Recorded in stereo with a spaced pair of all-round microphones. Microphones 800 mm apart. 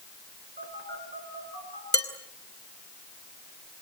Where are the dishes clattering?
10° left (ahead or behind), 2.5 m.